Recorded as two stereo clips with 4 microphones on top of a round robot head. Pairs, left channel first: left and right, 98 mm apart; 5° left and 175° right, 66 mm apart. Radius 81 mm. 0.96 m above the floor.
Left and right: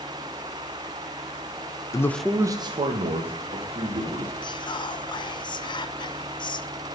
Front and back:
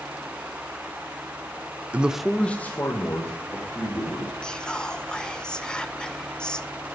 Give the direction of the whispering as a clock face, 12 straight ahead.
9 o'clock.